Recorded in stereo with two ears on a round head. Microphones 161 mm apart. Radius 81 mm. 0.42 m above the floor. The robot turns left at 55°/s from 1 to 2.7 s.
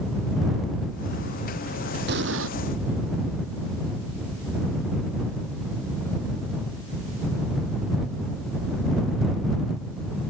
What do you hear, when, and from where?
2.1 s an explosion: 55° right (ahead or behind); by 2.5 s 80° right